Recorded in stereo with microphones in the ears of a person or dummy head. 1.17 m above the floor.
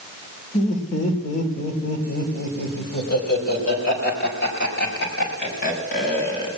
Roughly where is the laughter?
Left.